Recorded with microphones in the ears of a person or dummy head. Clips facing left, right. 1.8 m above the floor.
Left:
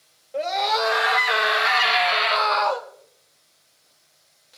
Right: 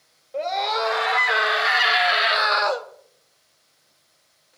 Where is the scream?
10° left (ahead or behind), 4 m; by 2.9 s 20° right (ahead or behind), 1.5 m.